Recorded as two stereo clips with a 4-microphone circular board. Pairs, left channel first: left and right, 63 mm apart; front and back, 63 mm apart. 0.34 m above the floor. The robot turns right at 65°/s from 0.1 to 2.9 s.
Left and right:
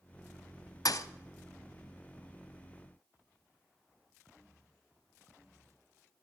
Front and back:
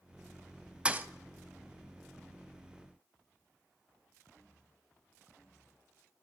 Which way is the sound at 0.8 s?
110° left.